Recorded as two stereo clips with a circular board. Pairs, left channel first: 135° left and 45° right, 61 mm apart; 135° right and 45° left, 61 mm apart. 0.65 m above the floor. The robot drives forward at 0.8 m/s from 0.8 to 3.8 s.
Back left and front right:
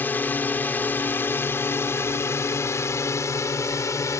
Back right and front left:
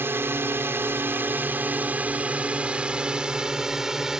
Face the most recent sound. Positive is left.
turn(degrees=125)